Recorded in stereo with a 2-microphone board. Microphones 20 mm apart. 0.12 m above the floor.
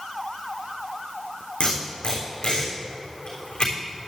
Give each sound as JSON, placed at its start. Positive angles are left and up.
{"t": 1.6, "sound": "tape being pulled", "side_deg": 60, "distance_m": 3.5}